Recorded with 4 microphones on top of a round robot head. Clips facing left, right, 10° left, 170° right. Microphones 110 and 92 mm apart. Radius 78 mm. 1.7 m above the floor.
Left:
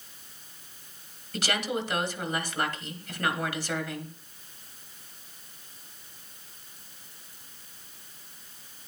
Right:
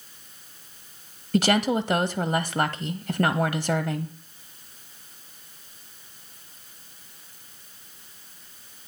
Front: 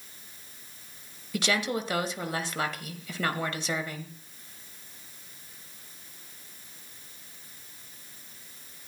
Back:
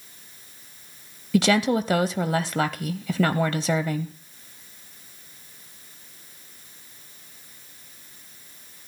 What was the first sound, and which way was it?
A woman speaking, 140° right.